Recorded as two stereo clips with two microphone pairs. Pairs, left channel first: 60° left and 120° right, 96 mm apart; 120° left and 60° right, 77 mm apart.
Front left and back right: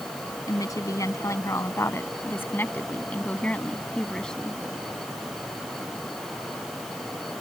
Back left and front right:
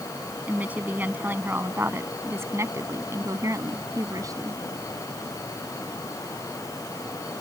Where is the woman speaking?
10° left; by 4.6 s 25° right.